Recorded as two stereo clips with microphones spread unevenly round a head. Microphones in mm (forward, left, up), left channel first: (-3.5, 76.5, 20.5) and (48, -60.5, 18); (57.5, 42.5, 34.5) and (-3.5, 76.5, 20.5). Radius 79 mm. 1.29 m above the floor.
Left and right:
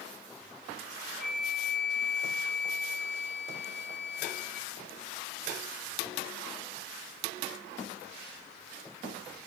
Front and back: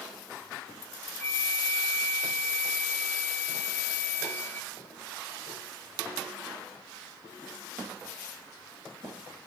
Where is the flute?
25° left, 1.1 m.